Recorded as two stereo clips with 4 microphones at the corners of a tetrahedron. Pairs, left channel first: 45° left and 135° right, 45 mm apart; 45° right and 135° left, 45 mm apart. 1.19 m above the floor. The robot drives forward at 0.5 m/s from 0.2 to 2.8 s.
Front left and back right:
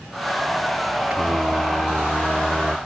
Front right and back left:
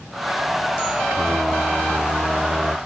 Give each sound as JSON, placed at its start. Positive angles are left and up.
{"t": 1.1, "sound": "singing", "azimuth_deg": 175}